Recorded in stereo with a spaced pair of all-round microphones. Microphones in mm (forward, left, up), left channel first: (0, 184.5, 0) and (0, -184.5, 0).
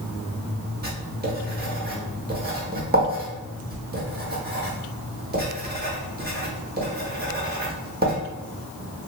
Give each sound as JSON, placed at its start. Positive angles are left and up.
{"t": 0.8, "sound": "writing", "side_deg": -25, "distance_m": 0.8}